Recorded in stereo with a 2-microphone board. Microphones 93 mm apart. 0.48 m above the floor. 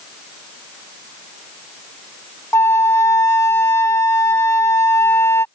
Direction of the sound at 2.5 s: 30° left (ahead or behind).